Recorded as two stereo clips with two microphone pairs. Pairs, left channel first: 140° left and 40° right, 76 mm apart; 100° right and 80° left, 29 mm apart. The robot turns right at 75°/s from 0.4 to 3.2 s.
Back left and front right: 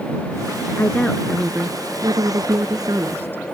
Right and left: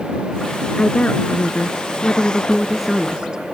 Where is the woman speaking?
160° right; by 3.4 s 25° left.